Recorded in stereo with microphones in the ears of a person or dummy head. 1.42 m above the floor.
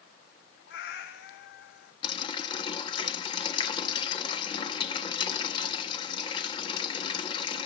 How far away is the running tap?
About 1.3 m.